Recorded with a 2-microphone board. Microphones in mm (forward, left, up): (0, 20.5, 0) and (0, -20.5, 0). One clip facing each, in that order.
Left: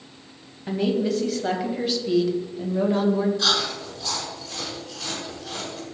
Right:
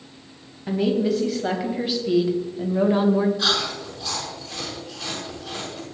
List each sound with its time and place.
0.7 s a woman speaking: centre (ahead or behind), 3 m; by 3.3 s 25° right (ahead or behind), 1.7 m
3.4 s chewing: 10° right (ahead or behind), 6 m